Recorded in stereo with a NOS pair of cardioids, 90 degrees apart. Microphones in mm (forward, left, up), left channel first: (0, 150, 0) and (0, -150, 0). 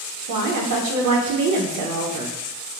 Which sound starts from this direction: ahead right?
A woman speaking, at 0.3 s.